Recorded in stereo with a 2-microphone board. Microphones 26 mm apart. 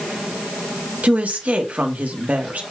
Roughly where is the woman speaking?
Right.